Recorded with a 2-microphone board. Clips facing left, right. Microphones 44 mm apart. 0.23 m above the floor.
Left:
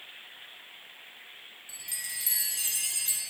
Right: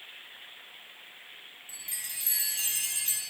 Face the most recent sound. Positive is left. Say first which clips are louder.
# left 3 dB
turn(degrees=-35)  # may be behind; listen again after turning